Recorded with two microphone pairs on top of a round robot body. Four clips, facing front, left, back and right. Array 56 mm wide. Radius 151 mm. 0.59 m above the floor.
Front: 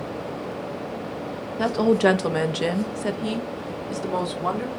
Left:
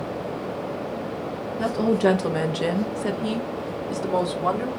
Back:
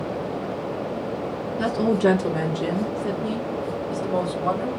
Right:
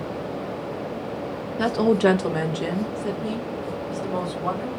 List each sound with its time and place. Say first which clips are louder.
1.6 s a woman speaking: right 2 dB, front 2 dB; 55° right, 0.8 m; by 4.7 s 50° left, 1.6 m